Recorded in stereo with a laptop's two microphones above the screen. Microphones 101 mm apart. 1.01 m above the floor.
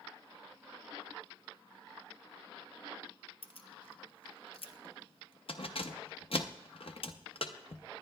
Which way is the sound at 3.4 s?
65° left (ahead or behind).